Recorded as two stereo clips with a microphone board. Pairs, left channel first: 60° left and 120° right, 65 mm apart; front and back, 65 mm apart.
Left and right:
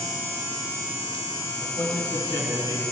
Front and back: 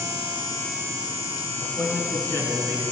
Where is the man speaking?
45° left, 5.5 m.